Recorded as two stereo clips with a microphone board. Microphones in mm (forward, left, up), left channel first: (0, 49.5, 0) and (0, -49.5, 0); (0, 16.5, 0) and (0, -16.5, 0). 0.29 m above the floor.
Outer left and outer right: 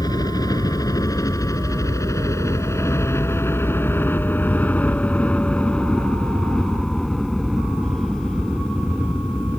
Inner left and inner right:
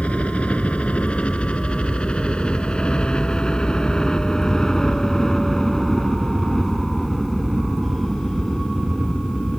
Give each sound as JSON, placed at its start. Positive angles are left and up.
{"t": 0.0, "sound": "a helicopter", "side_deg": 40}